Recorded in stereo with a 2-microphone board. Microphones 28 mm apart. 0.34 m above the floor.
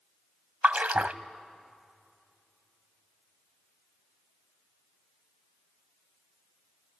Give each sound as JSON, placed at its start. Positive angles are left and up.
{"t": 0.6, "sound": "a splash", "side_deg": -55, "distance_m": 0.6}